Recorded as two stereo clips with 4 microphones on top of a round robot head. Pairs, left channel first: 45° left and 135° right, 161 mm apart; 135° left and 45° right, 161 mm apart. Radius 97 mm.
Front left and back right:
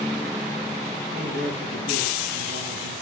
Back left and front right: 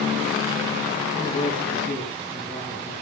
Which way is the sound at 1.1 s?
160° right.